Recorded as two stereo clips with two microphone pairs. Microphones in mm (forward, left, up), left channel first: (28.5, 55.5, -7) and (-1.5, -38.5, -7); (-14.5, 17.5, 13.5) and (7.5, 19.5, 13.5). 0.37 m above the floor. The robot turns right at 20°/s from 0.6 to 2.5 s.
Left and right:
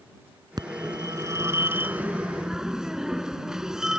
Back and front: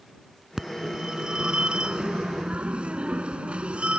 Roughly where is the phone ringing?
Ahead right.